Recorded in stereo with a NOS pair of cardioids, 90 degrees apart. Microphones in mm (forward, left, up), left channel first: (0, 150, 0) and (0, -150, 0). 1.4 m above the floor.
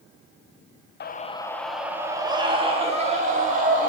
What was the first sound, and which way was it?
A scream, 35° left.